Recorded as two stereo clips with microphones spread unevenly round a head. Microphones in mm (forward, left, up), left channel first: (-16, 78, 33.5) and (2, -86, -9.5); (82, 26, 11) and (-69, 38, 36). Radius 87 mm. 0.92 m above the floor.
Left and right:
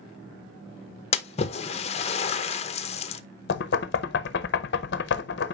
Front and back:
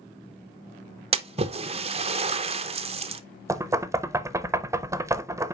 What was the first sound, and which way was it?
A splash, 145° left.